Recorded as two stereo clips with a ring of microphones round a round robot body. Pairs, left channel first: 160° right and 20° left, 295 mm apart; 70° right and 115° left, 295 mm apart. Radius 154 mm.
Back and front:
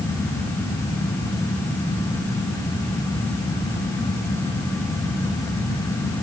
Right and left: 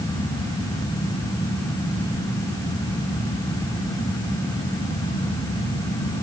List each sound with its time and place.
Only background noise.